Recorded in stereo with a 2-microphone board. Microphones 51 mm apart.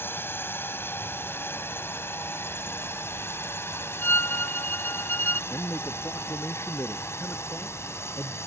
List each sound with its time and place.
0.0 s a drone: 45° left (ahead or behind); by 8.5 s 55° left (ahead or behind)
4.0 s a violin: 40° left (ahead or behind)
5.5 s a man speaking: 55° left (ahead or behind)